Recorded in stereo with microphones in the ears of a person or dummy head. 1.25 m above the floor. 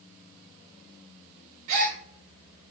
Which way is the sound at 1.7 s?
45° right (ahead or behind).